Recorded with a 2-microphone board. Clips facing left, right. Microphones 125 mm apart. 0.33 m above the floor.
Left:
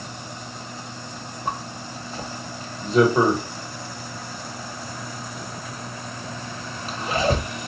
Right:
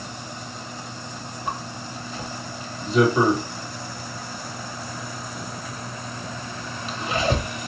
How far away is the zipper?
About 1.1 m.